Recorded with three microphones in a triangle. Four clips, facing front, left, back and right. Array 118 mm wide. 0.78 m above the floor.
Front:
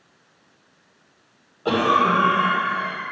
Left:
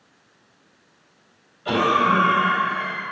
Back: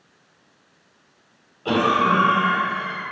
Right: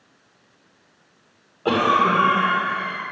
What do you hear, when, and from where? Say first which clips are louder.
1.6 s a cough: right 1 dB, even; 75° right, 2 m